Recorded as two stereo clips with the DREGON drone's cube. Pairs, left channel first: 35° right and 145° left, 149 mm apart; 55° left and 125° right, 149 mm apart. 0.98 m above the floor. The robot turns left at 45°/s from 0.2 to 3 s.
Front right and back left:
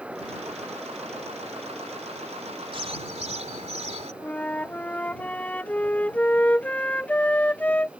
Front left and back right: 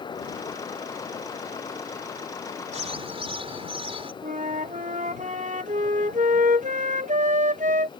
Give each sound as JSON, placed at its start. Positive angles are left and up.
{"t": 2.7, "sound": "a bird", "azimuth_deg": -160}
{"t": 4.2, "sound": "a flute", "azimuth_deg": -115}